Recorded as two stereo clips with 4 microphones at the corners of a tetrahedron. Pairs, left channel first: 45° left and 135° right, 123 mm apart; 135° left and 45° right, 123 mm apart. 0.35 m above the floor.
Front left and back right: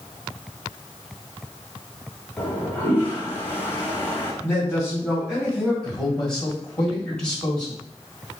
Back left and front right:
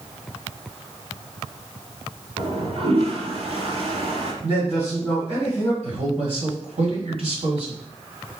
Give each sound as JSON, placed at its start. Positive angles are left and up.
{"t": 2.4, "sound": "a toilet flushing", "azimuth_deg": -25, "distance_m": 1.2}
{"t": 4.4, "sound": "a man speaking", "azimuth_deg": -45, "distance_m": 2.5}
{"t": 5.8, "sound": "a man speaking", "azimuth_deg": -40, "distance_m": 1.9}